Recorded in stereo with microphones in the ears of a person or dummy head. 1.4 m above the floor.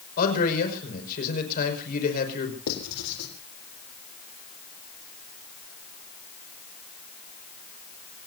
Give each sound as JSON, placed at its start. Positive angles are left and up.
{"t": 0.2, "sound": "a man speaking", "side_deg": 45, "distance_m": 6.0}
{"t": 2.7, "sound": "writing", "side_deg": 85, "distance_m": 4.0}